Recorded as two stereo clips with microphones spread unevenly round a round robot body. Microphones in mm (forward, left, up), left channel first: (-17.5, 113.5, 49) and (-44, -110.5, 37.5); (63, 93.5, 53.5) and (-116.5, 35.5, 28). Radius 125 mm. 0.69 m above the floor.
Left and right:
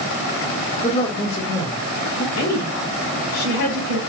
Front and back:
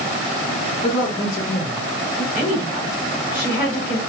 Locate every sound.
0.8 s a man speaking: 40° left, 1.2 m
2.4 s a woman speaking: 60° left, 2.5 m